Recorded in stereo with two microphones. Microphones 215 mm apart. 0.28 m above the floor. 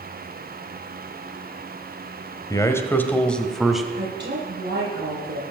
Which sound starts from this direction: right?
A woman speaking, at 3.9 s.